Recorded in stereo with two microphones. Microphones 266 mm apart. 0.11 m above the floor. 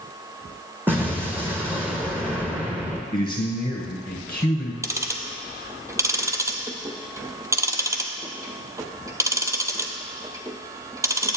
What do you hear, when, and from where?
0.9 s an explosion: 5° right (ahead or behind), 1.3 m
3.1 s a man speaking: 15° left (ahead or behind), 1.2 m
4.8 s ticking: 10° right (ahead or behind), 0.5 m